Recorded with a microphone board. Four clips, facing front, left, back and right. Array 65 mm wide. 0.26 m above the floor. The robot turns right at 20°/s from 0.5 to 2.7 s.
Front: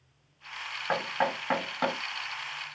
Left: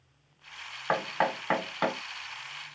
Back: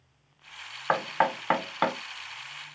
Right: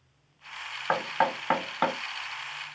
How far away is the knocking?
About 1.0 m.